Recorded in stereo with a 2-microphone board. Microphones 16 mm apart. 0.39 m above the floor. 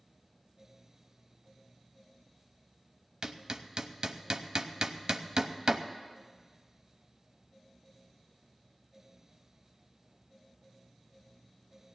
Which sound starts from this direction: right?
Hammering, at 3.2 s.